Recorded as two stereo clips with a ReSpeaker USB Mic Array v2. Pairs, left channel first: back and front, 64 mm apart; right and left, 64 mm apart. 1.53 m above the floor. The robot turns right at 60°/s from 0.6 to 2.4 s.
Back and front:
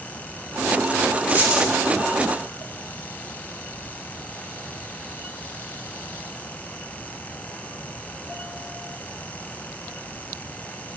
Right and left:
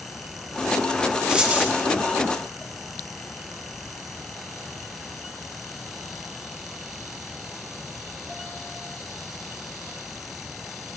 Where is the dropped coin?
30° left, 0.9 m; by 1.7 s 55° left, 0.9 m.